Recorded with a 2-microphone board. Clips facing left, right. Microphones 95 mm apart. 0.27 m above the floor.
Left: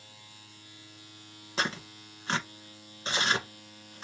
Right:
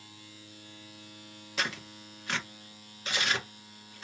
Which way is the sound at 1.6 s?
35° left (ahead or behind).